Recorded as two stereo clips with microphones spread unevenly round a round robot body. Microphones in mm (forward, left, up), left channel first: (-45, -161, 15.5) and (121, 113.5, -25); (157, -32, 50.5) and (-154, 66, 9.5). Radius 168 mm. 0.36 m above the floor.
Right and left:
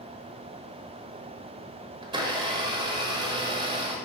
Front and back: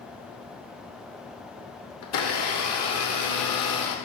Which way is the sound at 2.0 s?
Straight ahead.